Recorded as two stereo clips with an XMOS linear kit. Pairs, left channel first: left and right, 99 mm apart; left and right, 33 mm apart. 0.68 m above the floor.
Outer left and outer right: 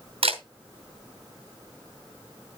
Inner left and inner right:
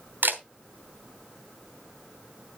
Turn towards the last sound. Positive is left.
turn(degrees=-80)